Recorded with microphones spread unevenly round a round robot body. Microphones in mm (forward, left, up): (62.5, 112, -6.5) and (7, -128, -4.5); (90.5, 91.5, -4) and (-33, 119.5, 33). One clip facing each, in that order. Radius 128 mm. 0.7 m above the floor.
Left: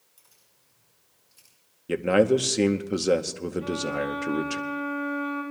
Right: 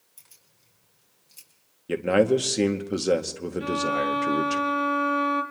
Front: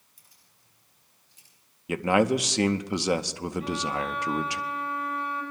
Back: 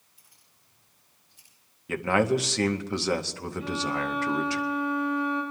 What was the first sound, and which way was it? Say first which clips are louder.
Keys jangling: right 2 dB, even; 55° right.